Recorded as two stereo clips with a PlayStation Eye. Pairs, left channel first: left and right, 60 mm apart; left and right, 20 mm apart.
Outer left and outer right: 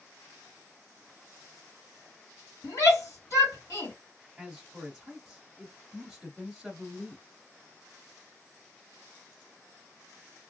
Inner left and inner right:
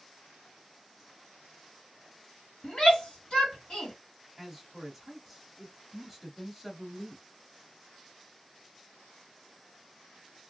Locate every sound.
2.6 s a shout: 55° left (ahead or behind), 1.9 m
4.4 s a man speaking: 10° right (ahead or behind), 1.2 m